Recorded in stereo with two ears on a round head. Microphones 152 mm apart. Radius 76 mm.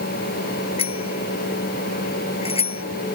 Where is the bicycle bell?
35° left (ahead or behind).